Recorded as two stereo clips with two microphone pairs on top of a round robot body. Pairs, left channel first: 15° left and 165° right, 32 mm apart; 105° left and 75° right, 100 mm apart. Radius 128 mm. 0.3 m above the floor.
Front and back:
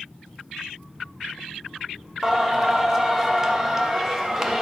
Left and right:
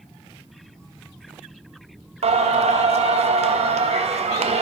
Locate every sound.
2.2 s singing: 90° right, 0.6 m